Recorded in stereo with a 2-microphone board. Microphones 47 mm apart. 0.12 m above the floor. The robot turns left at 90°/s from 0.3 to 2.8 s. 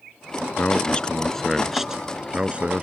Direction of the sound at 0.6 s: 25° left (ahead or behind).